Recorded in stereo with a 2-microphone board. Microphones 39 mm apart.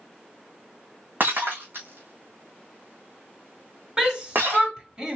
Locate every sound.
1.2 s breaking glass: 55° right (ahead or behind), 3 m
4.0 s a shout: 15° right (ahead or behind), 2.5 m